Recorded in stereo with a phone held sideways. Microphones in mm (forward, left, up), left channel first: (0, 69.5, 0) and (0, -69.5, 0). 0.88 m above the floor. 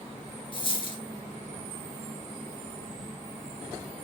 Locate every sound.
0.5 s a dropped coin: 40° left (ahead or behind), 1.5 m